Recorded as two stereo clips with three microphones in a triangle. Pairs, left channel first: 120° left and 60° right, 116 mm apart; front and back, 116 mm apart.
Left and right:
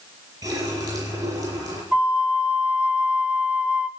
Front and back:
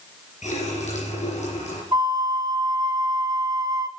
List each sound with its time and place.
0.4 s a running tap: straight ahead, 5 m
1.9 s a flute: 135° right, 0.6 m